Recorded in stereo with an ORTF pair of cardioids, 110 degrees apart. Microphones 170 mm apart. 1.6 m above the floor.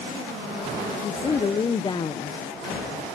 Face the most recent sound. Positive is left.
turn(degrees=25)